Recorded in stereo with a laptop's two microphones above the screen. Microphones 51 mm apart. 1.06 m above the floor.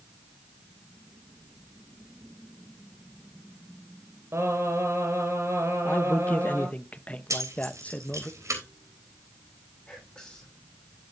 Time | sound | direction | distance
4.3 | singing | 60° right (ahead or behind) | 5 m
5.8 | a man speaking | 25° left (ahead or behind) | 0.8 m
7.3 | keys jangling | 85° right | 3.5 m
9.9 | whispering | 15° left (ahead or behind) | 8 m